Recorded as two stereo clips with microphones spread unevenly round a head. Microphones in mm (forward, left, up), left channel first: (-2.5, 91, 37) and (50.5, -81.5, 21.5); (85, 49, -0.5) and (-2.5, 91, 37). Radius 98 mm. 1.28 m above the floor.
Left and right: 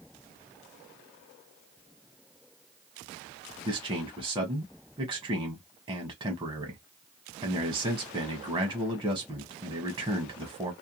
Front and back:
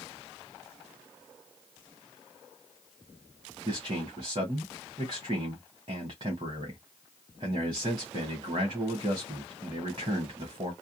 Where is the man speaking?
150° right, 0.7 m.